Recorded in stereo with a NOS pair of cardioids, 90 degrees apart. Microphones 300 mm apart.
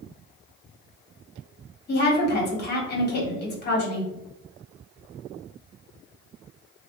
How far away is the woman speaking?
About 1.3 m.